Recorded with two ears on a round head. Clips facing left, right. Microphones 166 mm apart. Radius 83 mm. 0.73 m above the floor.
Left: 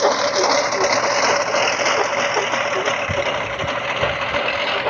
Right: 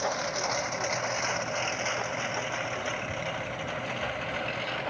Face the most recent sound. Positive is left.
turn(degrees=70)  # may be behind; listen again after turning